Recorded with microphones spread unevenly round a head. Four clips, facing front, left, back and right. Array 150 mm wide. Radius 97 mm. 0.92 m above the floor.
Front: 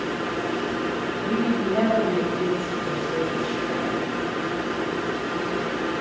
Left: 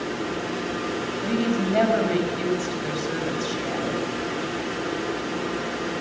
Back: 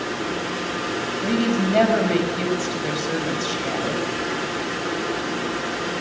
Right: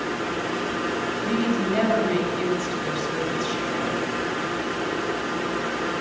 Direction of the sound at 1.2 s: Straight behind.